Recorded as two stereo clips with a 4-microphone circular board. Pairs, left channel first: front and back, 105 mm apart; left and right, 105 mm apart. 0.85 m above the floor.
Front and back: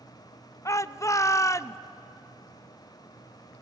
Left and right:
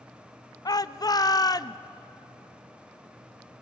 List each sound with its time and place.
0.7 s a shout: 50° left, 0.5 m